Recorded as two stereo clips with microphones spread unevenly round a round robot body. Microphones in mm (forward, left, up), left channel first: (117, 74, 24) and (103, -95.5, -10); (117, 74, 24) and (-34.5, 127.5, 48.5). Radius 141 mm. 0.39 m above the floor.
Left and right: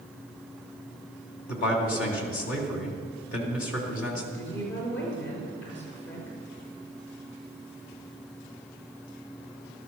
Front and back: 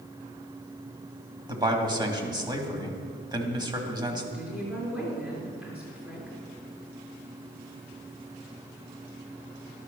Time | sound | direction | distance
1.5 | a man speaking | 95° left | 2.5 m
4.3 | a woman speaking | 80° left | 6 m